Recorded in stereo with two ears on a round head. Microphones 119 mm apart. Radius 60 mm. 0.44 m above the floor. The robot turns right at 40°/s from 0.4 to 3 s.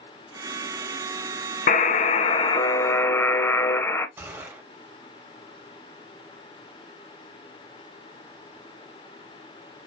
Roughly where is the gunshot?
Centre.